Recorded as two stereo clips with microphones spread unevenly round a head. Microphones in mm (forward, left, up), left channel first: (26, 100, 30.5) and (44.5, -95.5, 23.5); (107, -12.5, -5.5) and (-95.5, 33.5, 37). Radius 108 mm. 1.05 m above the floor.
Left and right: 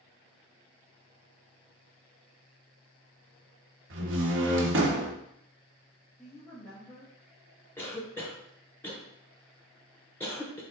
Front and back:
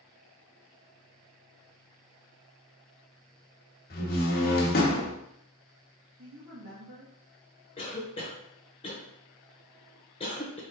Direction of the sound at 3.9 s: 60° right.